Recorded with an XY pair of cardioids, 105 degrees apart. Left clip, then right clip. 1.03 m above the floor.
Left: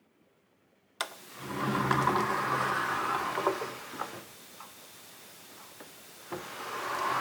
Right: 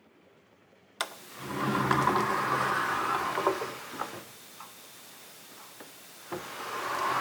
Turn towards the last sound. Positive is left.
turn(degrees=-5)